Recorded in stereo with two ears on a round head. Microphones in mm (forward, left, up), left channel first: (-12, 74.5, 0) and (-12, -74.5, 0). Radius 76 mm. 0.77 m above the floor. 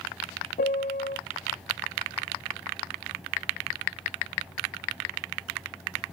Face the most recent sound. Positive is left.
turn(degrees=45)  # may be behind; listen again after turning